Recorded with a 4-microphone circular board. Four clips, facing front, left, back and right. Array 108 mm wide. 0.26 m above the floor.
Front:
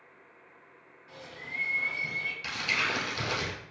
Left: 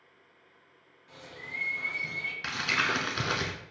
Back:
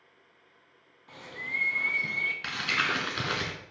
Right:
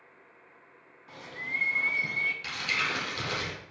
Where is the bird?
120° right, 0.8 m.